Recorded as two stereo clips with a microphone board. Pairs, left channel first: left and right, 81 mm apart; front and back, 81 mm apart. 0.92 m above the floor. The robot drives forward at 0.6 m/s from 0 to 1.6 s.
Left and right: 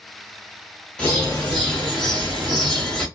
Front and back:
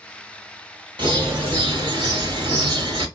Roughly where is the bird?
Behind.